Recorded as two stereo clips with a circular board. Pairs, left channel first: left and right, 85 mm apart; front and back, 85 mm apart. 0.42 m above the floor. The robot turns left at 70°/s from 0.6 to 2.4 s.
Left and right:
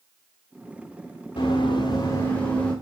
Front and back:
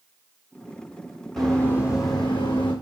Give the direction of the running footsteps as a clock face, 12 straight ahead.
9 o'clock.